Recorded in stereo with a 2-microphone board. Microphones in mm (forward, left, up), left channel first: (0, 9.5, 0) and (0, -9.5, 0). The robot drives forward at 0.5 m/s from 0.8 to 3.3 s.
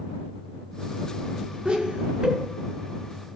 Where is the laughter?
45° right (ahead or behind), 4 m.